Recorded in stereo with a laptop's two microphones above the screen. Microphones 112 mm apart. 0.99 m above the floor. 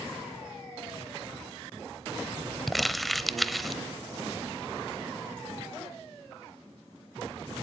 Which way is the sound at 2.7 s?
Centre (ahead or behind).